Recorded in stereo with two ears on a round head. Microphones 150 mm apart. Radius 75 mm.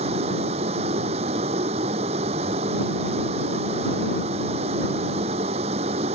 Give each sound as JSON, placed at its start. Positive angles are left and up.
{"t": 0.0, "sound": "a vehicle", "side_deg": -35}